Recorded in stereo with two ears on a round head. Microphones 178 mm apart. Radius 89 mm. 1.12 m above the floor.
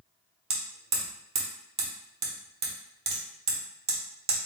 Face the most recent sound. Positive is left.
turn(degrees=-30)  # may be behind; listen again after turning